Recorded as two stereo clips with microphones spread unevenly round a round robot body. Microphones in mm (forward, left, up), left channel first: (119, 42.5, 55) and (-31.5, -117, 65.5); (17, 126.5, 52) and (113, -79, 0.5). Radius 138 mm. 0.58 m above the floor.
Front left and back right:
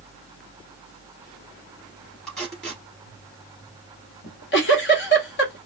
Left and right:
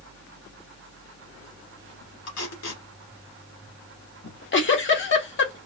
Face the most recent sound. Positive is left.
turn(degrees=75)